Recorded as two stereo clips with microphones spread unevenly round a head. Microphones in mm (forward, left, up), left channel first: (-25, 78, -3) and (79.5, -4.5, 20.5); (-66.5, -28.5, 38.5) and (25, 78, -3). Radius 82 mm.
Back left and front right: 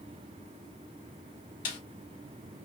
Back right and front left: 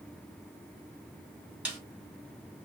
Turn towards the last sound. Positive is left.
turn(degrees=130)